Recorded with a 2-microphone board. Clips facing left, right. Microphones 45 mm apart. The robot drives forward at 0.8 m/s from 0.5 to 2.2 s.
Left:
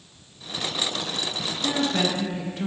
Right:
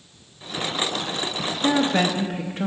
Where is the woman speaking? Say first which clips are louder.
Right 4 dB; 40° right (ahead or behind), 0.9 m; by 2.7 s 35° right (ahead or behind), 1.0 m.